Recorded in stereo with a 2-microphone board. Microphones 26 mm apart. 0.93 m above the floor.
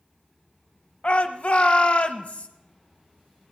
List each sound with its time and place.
1.0 s a shout: 45° left (ahead or behind), 0.9 m